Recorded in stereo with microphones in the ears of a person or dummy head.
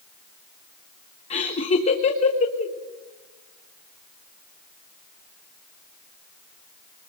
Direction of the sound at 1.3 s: 35° left (ahead or behind).